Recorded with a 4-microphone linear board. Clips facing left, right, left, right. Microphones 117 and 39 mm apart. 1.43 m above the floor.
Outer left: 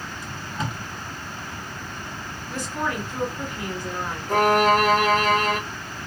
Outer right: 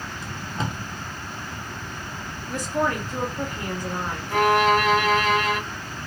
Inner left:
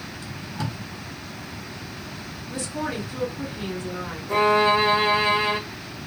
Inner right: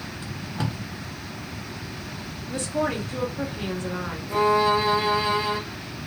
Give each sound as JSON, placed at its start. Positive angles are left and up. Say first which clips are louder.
{"t": 0.2, "sound": "tape being pulled", "louder": "outer right 1 dB, inner right 2 dB", "side_deg": -30, "distance_m": 1.1}
{"t": 2.5, "sound": "a woman speaking", "louder": "outer right 4 dB, inner right 4 dB", "side_deg": -45, "distance_m": 1.4}
{"t": 4.3, "sound": "a violin", "louder": "outer left 1 dB, inner left 2 dB", "side_deg": 40, "distance_m": 0.7}